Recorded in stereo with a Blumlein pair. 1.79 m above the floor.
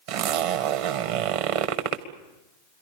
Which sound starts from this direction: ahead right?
A zipper, at 0.1 s.